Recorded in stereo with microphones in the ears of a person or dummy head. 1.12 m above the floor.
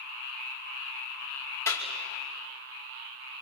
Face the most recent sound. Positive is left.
turn(degrees=15)  # may be behind; listen again after turning